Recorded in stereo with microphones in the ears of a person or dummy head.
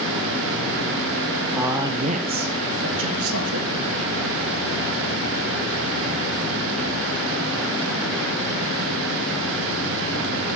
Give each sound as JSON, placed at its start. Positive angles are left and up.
{"t": 1.6, "sound": "a man speaking", "side_deg": -5, "distance_m": 1.1}